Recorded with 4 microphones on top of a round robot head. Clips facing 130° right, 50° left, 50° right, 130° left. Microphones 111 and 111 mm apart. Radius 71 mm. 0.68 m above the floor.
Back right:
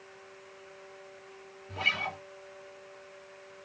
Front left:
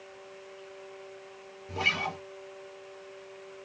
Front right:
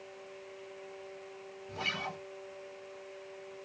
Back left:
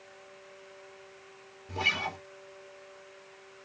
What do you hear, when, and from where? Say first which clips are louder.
1.7 s a guitar: front left 3 dB, back left 5 dB; 100° left, 0.9 m